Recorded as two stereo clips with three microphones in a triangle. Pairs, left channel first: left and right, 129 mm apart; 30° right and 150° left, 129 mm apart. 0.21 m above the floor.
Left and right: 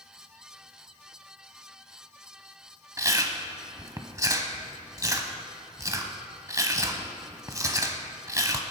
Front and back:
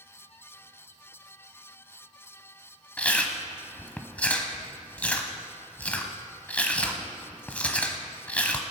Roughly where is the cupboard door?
No cupboard door in this recording.